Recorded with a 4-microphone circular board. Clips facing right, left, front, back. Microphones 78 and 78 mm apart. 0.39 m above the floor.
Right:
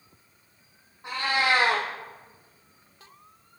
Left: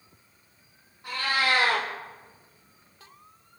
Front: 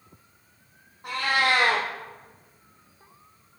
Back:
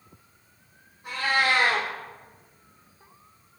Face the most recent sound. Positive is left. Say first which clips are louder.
# right 1 dB, even
turn(degrees=-20)